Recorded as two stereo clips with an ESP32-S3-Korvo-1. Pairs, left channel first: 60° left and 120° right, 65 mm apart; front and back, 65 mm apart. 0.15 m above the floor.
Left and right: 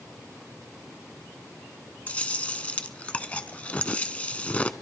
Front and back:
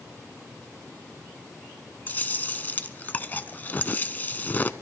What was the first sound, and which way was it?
Chewing, 15° left.